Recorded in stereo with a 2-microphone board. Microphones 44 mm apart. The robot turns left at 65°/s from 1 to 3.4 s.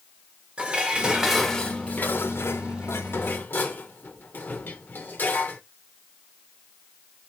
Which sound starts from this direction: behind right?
Dishes clattering, at 0.6 s.